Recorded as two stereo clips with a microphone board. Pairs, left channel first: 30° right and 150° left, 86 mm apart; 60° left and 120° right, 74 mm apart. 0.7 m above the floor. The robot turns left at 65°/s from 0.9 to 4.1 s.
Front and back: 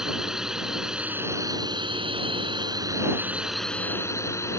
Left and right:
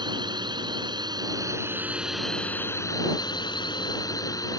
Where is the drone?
125° right; by 4.6 s 25° left.